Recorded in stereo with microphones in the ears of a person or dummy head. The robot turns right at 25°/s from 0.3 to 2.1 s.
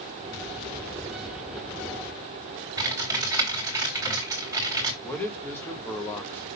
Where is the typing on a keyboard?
15° right (ahead or behind), 3 m.